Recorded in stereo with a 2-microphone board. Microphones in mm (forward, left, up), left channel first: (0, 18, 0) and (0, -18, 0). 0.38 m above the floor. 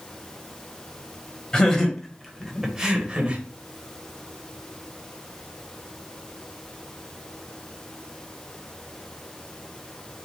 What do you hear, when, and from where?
1.5 s laughter: 20° left (ahead or behind), 2.5 m; by 3.4 s 35° right (ahead or behind), 2.0 m